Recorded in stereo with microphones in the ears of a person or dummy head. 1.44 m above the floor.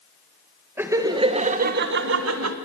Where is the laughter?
5° right (ahead or behind), 1.7 m; by 2.5 s 80° right, 1.7 m.